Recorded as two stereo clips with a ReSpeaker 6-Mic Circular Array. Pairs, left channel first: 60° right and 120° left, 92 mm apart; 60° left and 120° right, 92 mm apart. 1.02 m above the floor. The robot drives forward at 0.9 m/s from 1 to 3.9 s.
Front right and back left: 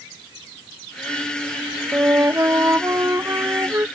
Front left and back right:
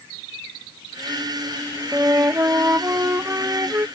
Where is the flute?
175° left; by 3.9 s straight behind.